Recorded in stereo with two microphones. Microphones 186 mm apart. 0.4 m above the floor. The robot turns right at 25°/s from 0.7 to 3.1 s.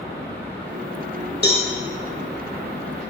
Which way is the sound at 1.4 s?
55° left (ahead or behind).